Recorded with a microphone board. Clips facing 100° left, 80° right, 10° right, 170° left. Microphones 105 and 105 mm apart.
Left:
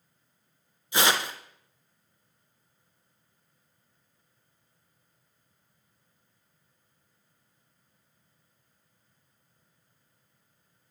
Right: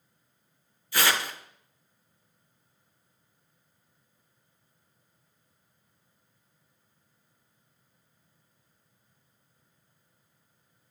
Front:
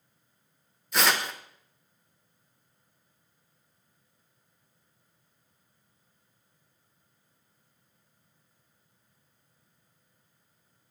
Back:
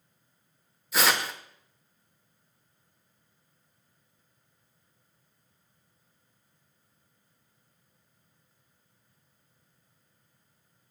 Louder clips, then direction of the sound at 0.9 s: Left 2 dB, even; 90° left.